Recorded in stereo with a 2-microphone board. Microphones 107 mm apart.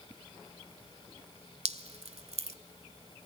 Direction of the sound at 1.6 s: 80° right.